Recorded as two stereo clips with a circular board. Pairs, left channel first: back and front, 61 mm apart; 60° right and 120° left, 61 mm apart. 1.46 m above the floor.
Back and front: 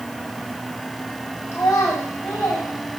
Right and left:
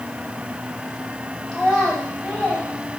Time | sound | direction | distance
1.5 | a child speaking | 150° right | 4 m